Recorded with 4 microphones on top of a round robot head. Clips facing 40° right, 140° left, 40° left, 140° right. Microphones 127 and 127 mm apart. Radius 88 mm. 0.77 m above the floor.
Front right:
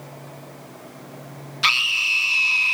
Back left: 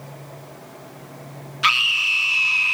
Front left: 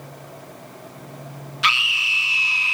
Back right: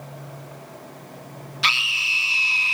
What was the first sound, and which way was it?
A scream, 90° right.